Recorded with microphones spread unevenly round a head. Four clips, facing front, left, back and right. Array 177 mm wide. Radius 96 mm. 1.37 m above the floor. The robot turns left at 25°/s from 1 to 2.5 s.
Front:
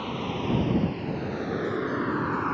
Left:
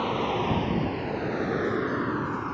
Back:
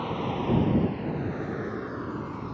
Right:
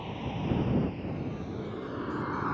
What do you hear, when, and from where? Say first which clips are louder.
0.0 s a vehicle: left 9 dB, back 1 dB; 80° left; by 2.5 s straight ahead